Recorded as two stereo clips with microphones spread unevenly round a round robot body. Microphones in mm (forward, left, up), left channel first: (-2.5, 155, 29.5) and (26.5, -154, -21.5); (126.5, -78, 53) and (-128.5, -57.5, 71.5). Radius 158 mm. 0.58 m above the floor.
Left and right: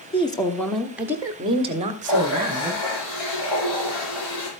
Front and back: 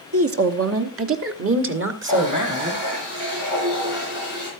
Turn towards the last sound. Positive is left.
turn(degrees=100)